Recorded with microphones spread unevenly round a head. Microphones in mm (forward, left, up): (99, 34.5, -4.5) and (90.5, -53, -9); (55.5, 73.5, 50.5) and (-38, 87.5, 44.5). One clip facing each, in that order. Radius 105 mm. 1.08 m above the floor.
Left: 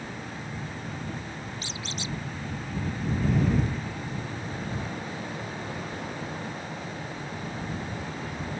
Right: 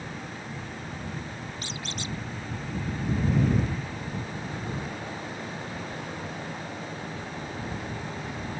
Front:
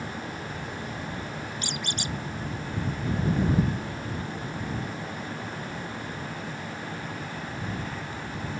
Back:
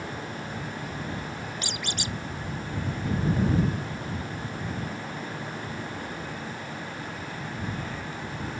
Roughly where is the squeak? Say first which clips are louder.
Even, front 1 dB; behind.